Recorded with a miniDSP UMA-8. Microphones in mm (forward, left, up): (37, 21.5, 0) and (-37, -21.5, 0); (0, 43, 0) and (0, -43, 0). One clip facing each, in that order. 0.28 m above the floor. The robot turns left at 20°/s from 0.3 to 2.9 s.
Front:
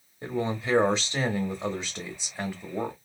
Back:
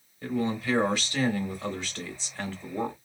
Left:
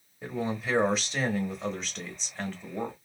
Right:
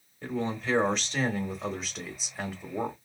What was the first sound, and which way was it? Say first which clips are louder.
A man speaking: back 1 dB, right 1 dB; 25° left.